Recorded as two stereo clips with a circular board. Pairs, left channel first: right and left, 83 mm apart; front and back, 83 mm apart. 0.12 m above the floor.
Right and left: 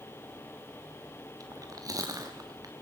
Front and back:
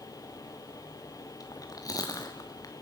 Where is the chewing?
45° left, 2.5 m.